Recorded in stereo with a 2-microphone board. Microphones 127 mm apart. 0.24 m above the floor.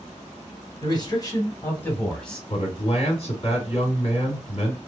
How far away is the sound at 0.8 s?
About 1.9 m.